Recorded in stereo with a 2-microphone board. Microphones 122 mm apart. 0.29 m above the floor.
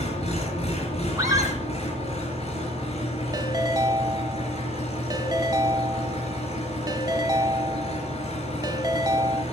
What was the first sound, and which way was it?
An engine running, 60° left (ahead or behind).